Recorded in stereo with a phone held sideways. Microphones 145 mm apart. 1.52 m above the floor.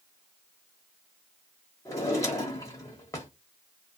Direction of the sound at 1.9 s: 25° left (ahead or behind).